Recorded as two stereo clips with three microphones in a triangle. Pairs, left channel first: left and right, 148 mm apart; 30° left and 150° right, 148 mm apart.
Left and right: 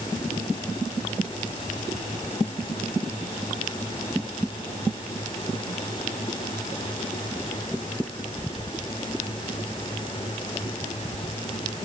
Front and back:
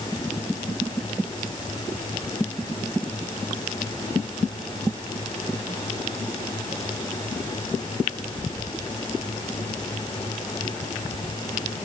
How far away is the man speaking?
I don't hear a man speaking.